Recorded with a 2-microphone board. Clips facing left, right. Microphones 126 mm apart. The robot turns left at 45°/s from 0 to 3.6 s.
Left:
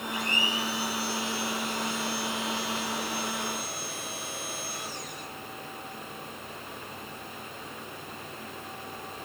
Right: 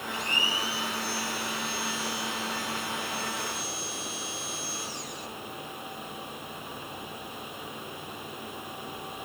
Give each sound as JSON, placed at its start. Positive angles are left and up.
{"t": 0.1, "sound": "a blender", "azimuth_deg": -150, "distance_m": 9.5}